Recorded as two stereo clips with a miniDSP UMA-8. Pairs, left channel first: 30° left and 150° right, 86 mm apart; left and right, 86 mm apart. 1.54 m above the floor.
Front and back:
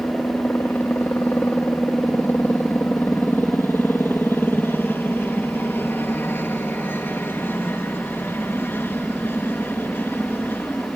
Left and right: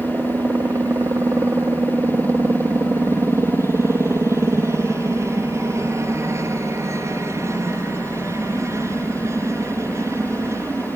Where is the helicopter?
35° right.